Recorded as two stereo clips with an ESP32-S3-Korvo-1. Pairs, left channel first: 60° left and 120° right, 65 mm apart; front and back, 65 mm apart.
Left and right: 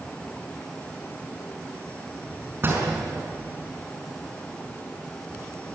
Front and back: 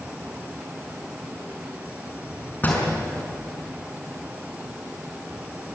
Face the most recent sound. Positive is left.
turn(degrees=-60)